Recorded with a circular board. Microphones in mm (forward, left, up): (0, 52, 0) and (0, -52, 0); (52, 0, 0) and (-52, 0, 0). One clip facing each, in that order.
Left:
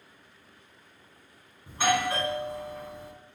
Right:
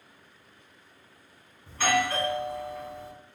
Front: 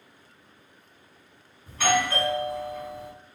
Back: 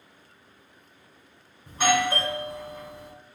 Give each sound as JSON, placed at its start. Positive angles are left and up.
{"t": 1.7, "sound": "a doorbell", "azimuth_deg": 135, "distance_m": 2.0}